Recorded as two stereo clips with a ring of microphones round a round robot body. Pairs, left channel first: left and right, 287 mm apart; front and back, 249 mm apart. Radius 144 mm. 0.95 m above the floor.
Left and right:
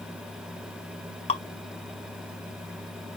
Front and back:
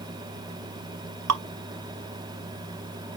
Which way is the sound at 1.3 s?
160° left.